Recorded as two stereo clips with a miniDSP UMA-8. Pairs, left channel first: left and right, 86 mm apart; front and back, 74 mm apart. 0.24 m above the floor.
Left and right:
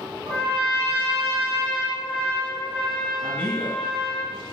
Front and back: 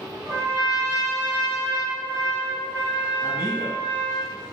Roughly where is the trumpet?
Behind.